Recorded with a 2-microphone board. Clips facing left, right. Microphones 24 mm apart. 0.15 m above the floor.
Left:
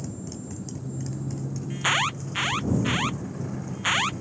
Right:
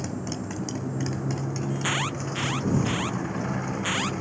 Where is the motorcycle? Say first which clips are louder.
Right 5 dB; 45° right (ahead or behind).